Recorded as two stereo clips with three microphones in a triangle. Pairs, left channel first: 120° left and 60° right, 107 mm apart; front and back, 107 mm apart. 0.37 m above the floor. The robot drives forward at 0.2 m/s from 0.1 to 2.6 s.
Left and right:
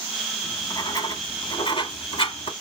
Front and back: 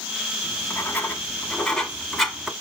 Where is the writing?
70° left, 1.0 m; by 2.5 s 90° left, 1.0 m.